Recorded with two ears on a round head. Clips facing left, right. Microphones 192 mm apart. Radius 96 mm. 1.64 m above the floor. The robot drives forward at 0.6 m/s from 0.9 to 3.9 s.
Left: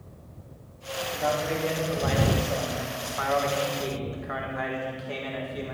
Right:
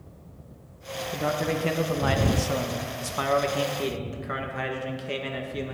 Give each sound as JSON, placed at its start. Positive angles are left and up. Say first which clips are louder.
{"t": 1.1, "sound": "a man speaking", "louder": "right 1 dB", "side_deg": -50, "distance_m": 1.1}